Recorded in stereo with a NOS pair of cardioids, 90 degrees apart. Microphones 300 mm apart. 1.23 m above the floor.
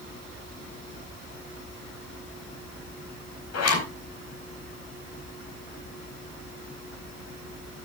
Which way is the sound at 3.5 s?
55° left.